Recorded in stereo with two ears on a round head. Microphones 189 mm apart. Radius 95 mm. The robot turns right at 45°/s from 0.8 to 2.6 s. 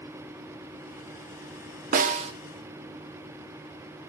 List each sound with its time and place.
1.9 s a snare drum: 40° right (ahead or behind), 1.0 m; by 2.3 s 25° right (ahead or behind), 1.0 m